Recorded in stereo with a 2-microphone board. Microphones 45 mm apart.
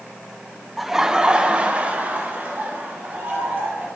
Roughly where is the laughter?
Centre.